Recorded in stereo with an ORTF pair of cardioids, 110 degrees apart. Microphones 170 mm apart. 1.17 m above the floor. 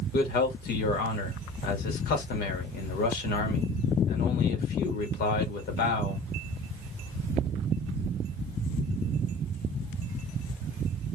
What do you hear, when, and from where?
0.1 s a man speaking: 70° left, 1.5 m